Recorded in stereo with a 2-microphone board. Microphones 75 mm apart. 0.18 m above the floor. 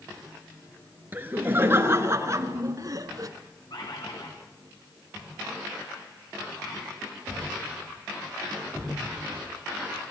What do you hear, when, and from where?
1.1 s laughter: 25° right (ahead or behind), 3 m; by 3.3 s 50° right (ahead or behind), 2 m
3.7 s a bird: 60° left (ahead or behind), 6.5 m